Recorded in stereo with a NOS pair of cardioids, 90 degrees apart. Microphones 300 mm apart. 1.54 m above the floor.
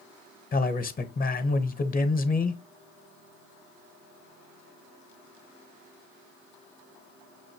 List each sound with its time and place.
0.5 s a man speaking: 30° left, 1.0 m